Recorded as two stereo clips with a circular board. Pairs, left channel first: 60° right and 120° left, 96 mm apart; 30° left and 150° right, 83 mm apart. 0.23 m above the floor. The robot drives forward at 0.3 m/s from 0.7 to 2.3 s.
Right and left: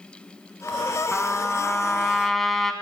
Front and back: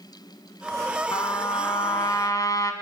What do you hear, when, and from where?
1.1 s a trumpet: 20° left, 2.5 m; by 2.7 s 25° left, 2.5 m